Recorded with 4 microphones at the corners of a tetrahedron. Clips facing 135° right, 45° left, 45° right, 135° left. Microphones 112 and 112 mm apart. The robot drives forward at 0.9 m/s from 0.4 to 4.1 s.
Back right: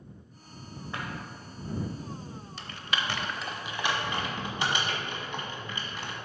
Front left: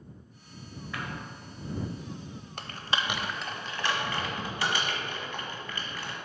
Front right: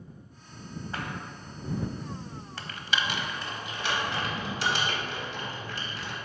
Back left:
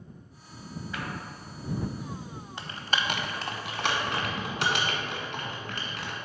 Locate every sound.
0.9 s a clap: 80° right, 1.2 m; by 1.1 s 90° right, 1.2 m
2.6 s typing on a keyboard: 65° left, 0.6 m; by 6.2 s 155° left, 1.3 m